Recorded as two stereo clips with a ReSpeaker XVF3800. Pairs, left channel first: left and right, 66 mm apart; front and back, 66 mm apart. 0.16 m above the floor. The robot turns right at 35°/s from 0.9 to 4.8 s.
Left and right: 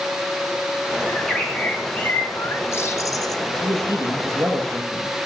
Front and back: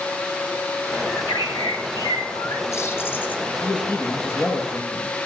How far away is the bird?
About 2.5 m.